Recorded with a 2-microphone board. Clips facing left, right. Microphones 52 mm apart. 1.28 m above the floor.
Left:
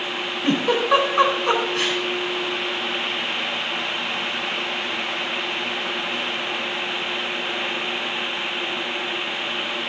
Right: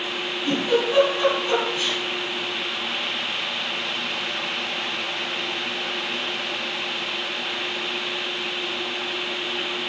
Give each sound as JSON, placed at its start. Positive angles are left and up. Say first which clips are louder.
{"t": 0.4, "sound": "a giggle", "louder": "left 2 dB", "side_deg": 65, "distance_m": 4.0}